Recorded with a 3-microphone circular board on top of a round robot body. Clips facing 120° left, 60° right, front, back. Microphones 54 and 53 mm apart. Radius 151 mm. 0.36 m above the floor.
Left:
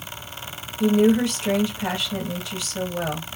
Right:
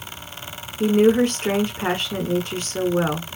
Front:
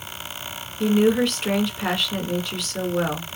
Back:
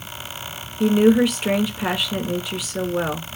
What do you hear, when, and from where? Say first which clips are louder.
0.8 s a woman speaking: right 2 dB, back 3 dB; 95° right, 1.5 m